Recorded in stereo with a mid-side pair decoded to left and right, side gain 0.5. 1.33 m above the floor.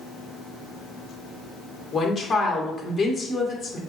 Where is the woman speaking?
30° left, 1.5 m.